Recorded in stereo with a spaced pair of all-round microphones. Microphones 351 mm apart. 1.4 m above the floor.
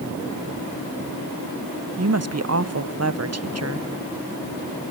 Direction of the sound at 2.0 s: 45° right (ahead or behind).